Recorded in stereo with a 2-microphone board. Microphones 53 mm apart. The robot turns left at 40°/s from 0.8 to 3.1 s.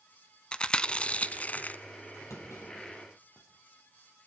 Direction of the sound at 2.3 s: 75° left (ahead or behind).